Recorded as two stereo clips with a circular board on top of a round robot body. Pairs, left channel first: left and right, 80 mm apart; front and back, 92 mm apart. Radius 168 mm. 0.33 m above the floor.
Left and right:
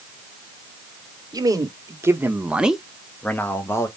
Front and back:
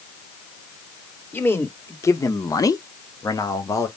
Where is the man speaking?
65° right, 1.5 m; by 3.9 s 45° left, 1.4 m.